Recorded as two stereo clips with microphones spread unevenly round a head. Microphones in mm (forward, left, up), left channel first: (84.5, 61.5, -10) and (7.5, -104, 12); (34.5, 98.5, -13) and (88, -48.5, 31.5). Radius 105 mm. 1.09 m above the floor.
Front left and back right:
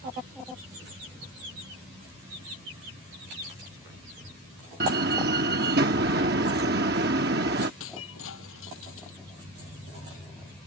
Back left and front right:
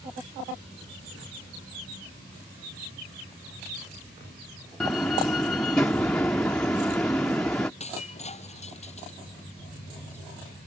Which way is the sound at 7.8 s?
60° left.